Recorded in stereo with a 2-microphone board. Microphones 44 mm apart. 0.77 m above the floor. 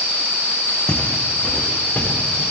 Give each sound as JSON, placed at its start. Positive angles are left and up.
{"t": 0.9, "sound": "footsteps", "side_deg": 15, "distance_m": 2.5}